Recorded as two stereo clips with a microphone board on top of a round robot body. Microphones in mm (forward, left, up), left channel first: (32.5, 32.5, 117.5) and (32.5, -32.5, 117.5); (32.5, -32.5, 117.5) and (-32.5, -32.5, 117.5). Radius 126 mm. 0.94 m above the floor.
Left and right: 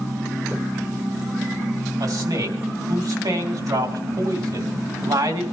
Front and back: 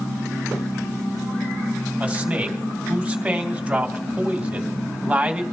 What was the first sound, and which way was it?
A man speaking, 110° right.